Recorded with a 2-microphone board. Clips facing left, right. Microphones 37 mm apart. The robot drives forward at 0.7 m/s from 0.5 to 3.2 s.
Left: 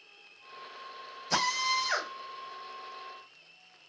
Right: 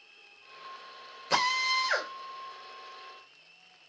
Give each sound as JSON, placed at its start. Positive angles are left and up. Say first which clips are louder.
{"t": 1.3, "sound": "a drill", "louder": "right 2 dB", "side_deg": -40, "distance_m": 2.5}